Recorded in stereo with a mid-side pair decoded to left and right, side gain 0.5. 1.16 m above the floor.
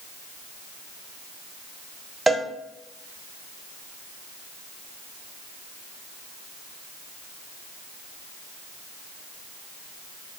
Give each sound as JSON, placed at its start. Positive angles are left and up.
{"t": 2.3, "sound": "a cowbell", "azimuth_deg": -20, "distance_m": 0.5}